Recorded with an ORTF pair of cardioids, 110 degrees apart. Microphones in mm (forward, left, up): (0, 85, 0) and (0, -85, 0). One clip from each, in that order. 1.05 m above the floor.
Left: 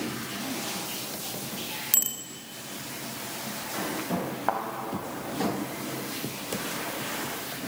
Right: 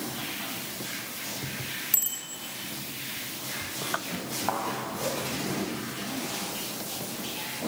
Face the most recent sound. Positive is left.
turn(degrees=35)